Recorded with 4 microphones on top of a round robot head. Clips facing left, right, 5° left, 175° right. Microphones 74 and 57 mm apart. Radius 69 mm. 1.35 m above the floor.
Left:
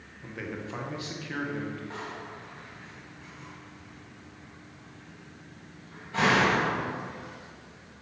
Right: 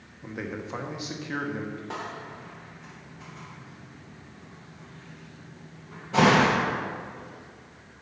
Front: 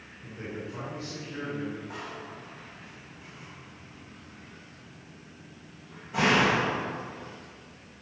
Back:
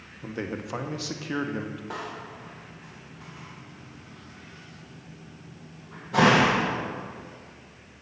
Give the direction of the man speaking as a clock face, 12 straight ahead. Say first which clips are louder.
Right 2 dB, back 5 dB; 5 o'clock.